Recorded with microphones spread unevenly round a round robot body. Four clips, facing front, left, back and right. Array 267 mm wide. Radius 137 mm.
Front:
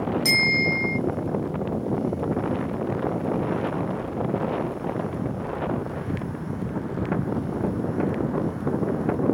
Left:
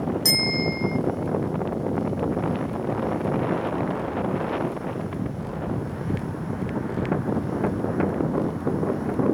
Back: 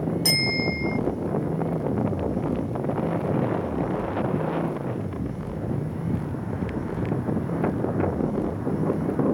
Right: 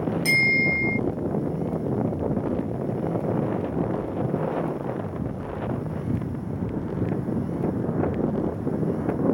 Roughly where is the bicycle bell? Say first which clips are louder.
Right 1 dB, front 2 dB; behind.